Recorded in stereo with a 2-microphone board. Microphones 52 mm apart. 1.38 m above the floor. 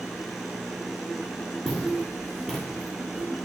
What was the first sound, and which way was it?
Footsteps, 5° left (ahead or behind).